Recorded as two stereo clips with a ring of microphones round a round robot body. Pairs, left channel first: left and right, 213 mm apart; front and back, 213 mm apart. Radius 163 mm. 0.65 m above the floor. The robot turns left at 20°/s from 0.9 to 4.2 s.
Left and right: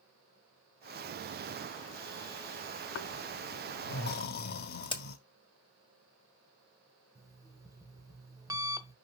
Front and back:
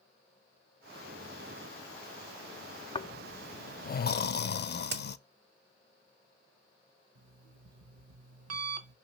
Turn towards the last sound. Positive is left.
turn(degrees=-165)